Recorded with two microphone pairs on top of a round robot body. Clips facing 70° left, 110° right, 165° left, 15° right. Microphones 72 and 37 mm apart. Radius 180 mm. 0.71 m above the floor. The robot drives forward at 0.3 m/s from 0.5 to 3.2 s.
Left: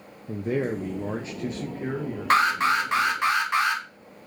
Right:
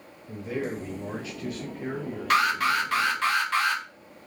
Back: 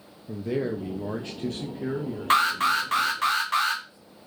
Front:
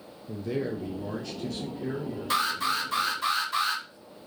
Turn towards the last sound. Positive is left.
turn(degrees=145)